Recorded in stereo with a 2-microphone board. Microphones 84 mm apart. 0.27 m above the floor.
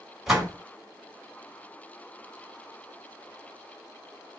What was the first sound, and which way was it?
A door slam, 5° right (ahead or behind).